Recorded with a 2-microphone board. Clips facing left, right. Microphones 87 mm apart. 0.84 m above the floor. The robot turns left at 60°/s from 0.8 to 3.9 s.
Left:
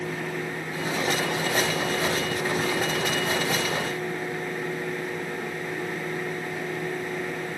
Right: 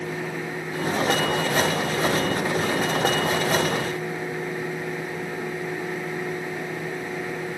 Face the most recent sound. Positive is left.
No sound to turn to.